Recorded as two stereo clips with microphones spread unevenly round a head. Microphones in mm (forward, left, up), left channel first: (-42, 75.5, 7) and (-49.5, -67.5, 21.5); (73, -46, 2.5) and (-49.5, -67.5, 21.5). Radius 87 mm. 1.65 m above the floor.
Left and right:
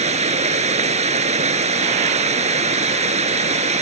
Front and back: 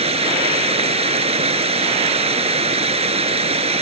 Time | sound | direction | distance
0.0 | running water | 135° right | ?